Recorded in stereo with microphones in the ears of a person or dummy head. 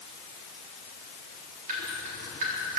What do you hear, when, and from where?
1.7 s dripping: 45° right (ahead or behind), 3.5 m